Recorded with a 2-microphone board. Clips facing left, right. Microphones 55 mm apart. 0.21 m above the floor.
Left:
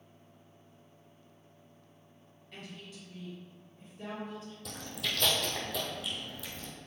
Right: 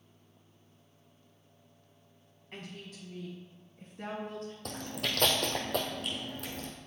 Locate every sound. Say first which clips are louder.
2.5 s a woman speaking: right 2 dB; 40° right (ahead or behind), 1.7 m; by 4.5 s 45° right (ahead or behind), 2.5 m
4.7 s chewing: right 1 dB; 55° right (ahead or behind), 1.7 m